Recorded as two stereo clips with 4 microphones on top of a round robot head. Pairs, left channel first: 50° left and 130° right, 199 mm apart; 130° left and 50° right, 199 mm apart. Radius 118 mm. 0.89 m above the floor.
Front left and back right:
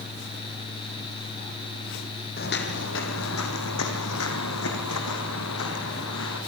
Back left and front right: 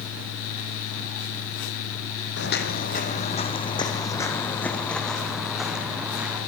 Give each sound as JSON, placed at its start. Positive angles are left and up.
{"t": 2.4, "sound": "footsteps", "azimuth_deg": 95, "distance_m": 2.0}